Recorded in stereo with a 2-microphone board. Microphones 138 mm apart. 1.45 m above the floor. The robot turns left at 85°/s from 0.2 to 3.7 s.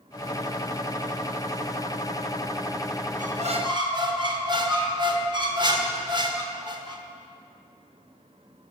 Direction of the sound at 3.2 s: 100° right.